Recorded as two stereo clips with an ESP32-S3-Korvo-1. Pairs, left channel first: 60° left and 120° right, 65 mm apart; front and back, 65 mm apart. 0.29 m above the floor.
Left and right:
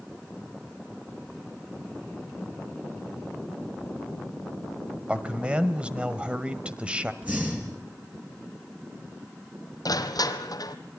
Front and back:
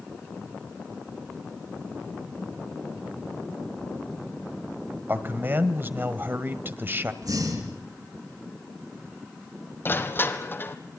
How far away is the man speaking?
About 1.5 m.